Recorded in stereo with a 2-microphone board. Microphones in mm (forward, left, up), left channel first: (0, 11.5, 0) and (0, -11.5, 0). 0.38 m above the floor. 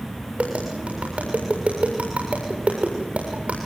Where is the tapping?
65° right (ahead or behind), 7 m.